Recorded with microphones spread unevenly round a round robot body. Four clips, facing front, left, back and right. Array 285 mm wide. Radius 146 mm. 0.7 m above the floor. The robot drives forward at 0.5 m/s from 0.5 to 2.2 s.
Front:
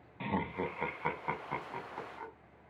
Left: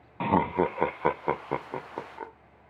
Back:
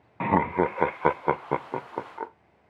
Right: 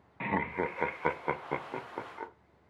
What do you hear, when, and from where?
0.2 s laughter: 140° left, 0.6 m; by 2.3 s 170° left, 1.3 m